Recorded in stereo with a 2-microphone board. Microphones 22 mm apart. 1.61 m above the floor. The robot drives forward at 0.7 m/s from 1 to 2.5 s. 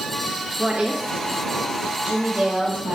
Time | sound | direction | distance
0.6 | a woman speaking | 75° right (ahead or behind) | 2 m